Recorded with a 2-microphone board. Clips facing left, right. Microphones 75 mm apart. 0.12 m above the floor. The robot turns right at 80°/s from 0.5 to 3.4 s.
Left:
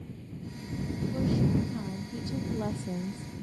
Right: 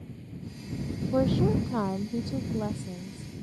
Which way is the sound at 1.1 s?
125° right.